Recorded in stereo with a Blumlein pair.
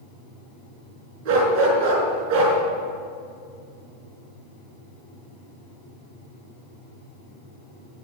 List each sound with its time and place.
1.2 s a dog barking: 40° right, 5 m